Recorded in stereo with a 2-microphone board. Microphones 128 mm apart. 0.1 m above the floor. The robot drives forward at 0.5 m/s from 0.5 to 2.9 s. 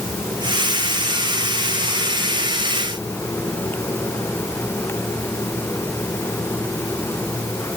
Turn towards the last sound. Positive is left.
No sound to turn to.